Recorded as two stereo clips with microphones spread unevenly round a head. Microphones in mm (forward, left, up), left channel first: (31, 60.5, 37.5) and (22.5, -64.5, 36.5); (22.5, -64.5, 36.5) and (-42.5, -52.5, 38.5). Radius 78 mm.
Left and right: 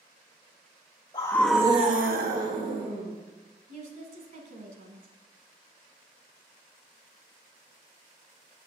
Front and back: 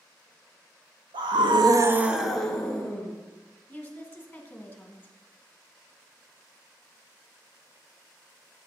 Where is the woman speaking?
80° right, 1.9 m.